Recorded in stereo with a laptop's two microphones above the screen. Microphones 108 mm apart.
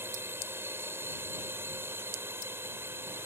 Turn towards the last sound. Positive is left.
turn(degrees=-20)  # may be behind; listen again after turning